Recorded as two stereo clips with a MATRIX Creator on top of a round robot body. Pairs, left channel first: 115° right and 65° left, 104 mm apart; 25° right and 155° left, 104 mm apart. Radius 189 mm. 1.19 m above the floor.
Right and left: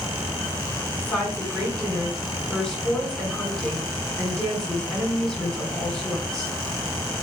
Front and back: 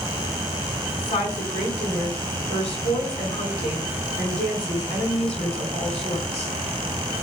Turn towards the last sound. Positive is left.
turn(degrees=-25)